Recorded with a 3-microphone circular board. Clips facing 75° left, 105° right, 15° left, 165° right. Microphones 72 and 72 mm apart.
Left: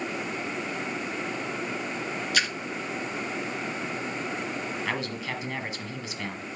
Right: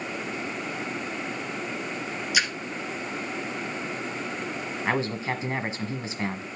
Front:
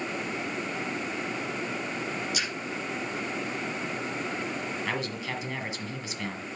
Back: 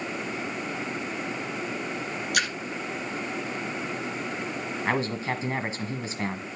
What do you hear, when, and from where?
2.3 s a splash: 175° left, 1.4 m
4.8 s a man speaking: 145° right, 1.4 m